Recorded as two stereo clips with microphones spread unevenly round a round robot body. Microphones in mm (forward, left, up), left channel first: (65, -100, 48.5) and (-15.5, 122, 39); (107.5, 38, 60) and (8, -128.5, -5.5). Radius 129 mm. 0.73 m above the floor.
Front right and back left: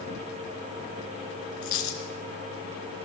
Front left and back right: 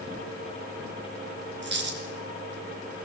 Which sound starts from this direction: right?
A dropped coin, at 1.6 s.